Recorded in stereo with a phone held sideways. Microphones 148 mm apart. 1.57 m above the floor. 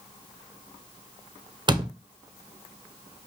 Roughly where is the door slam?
Right.